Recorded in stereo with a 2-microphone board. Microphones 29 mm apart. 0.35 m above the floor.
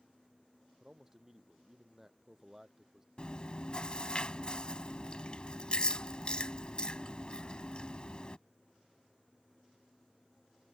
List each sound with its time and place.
0.8 s a man speaking: 15° right (ahead or behind)
3.2 s chewing: 35° left (ahead or behind)